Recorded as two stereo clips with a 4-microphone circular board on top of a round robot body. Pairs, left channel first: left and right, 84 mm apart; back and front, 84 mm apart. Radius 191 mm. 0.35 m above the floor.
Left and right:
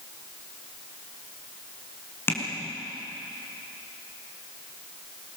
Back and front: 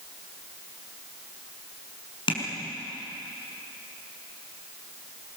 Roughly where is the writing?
I don't hear writing.